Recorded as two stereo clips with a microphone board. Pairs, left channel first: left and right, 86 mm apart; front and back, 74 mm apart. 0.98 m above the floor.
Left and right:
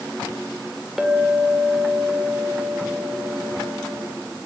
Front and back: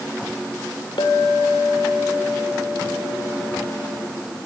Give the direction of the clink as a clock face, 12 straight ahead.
12 o'clock.